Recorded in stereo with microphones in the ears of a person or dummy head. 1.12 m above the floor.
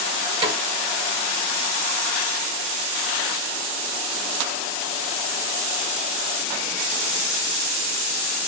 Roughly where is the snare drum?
Right.